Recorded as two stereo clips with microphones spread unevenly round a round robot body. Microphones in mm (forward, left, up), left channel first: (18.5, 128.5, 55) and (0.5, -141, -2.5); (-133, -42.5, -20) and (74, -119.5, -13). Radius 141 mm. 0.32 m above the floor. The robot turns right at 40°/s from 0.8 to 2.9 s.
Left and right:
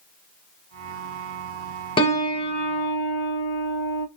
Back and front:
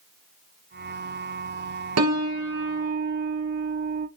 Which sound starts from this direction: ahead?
A piano, at 2.0 s.